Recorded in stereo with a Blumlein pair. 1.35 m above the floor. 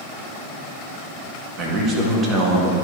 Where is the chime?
I don't hear a chime.